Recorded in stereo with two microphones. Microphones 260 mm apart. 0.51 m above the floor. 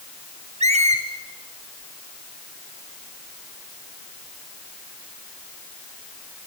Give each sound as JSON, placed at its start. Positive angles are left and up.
{"t": 0.6, "sound": "a squeak", "side_deg": -25, "distance_m": 2.5}